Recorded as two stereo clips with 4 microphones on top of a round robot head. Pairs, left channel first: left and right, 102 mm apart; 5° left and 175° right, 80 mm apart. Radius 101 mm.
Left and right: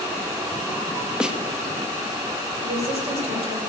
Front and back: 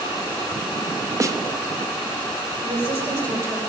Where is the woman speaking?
115° right, 3.5 m.